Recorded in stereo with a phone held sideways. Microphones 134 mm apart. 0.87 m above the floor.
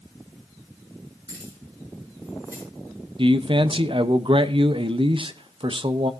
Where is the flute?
No flute in this recording.